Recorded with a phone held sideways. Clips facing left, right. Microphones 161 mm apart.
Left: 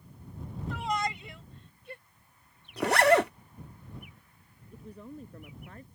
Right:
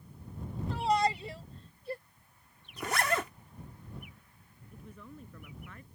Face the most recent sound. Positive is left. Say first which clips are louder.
# left 5 dB
turn(degrees=35)  # may be behind; listen again after turning